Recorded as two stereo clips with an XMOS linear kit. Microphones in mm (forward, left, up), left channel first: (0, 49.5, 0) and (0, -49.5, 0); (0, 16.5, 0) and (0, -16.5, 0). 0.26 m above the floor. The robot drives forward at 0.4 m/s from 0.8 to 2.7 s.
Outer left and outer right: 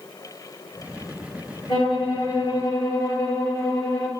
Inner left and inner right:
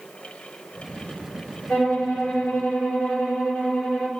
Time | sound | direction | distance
1.7 | a violin | 45° left (ahead or behind) | 1.7 m